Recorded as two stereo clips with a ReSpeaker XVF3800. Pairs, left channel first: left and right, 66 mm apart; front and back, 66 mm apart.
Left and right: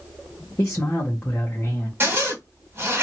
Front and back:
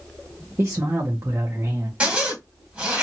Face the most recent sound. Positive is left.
turn(degrees=-120)